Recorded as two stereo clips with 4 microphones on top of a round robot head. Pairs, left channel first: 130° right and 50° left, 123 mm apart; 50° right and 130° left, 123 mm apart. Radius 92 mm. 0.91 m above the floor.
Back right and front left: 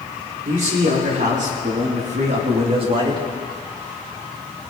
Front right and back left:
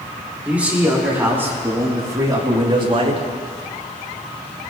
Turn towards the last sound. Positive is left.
turn(degrees=100)